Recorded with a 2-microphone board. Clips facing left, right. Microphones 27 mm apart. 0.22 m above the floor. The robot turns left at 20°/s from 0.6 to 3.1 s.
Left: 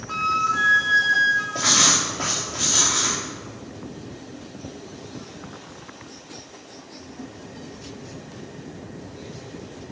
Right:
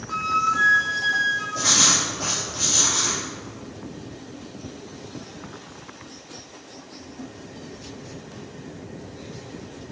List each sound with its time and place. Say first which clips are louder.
0.1 s a flute: even; 25° left (ahead or behind), 1.3 m; by 1.4 s 20° left (ahead or behind), 1.3 m
1.6 s writing: left 1 dB; 125° left, 3 m; by 3.2 s 95° left, 3 m